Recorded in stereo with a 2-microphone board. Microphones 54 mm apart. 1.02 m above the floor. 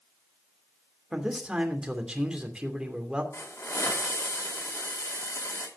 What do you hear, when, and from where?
1.1 s a man speaking: 15° right (ahead or behind), 2.5 m
3.3 s a hiss: 65° left (ahead or behind), 2.5 m